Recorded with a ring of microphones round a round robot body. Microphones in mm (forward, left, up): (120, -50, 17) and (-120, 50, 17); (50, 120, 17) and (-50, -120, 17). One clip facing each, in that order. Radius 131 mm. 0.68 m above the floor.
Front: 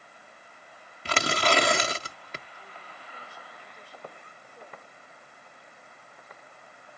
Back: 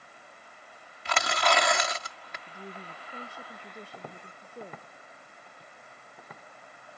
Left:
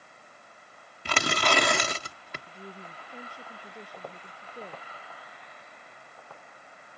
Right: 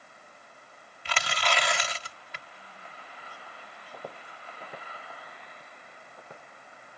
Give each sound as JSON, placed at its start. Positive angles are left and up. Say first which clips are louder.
{"t": 1.1, "sound": "tearing paper", "louder": "front 2 dB, left 5 dB", "azimuth_deg": 30}
{"t": 2.5, "sound": "a woman speaking", "louder": "back 7 dB, left 8 dB", "azimuth_deg": 120}
{"t": 3.9, "sound": "footsteps", "louder": "back 1 dB, right 1 dB", "azimuth_deg": 165}